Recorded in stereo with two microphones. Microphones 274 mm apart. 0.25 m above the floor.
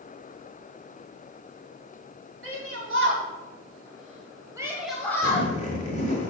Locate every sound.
2.4 s a shout: 55° right (ahead or behind), 2.5 m; by 5.5 s 20° left (ahead or behind), 1.6 m
5.2 s a zipper: 25° left (ahead or behind), 1.6 m